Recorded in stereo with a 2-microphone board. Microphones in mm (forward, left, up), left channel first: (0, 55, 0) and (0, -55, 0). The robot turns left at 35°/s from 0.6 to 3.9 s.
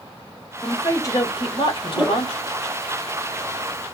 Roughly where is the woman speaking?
Behind.